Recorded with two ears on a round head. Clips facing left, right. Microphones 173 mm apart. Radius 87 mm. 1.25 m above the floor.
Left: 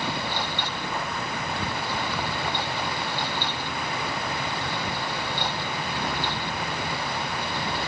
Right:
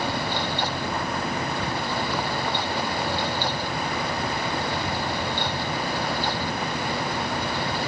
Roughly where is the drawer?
No drawer in this recording.